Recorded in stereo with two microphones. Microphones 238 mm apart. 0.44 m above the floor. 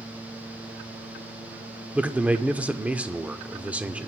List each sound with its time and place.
1.9 s a man speaking: 5° right (ahead or behind), 0.7 m